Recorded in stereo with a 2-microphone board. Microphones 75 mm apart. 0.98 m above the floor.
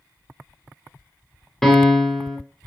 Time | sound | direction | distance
1.6 | a piano | 5° left (ahead or behind) | 0.5 m